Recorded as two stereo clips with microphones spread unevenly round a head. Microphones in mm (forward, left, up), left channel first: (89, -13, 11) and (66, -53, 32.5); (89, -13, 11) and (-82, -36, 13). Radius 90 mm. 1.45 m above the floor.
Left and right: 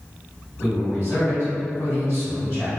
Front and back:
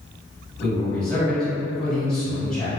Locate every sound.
0.6 s a man speaking: 90° left, 1.0 m